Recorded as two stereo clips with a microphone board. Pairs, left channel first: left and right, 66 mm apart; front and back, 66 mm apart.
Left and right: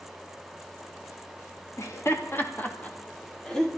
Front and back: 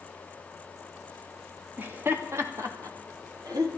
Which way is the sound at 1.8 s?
120° left.